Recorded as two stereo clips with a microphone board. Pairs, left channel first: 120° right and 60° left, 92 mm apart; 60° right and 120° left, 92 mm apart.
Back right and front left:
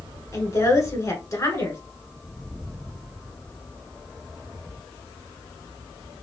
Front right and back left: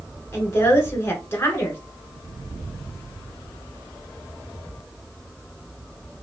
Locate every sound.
0.3 s a woman speaking: 100° right, 1.4 m